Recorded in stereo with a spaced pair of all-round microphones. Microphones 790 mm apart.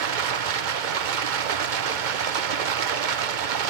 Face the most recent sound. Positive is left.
turn(degrees=-70)  # may be behind; listen again after turning